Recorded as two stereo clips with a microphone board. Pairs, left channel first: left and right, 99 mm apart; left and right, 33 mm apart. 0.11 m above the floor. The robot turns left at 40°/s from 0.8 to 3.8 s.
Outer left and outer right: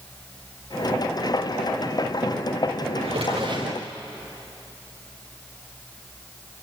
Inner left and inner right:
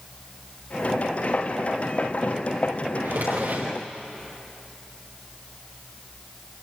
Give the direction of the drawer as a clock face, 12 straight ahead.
3 o'clock.